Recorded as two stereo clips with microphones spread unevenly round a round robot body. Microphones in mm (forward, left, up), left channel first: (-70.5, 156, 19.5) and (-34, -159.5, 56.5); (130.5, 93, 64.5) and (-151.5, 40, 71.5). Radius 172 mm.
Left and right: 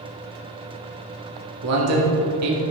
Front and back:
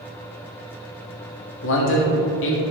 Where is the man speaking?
40° right, 2 m.